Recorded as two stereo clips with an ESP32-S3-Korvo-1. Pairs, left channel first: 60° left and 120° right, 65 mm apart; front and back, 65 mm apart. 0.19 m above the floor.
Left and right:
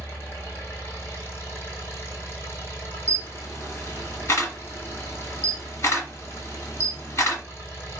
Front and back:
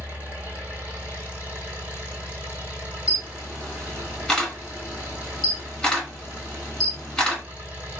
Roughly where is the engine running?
Behind left.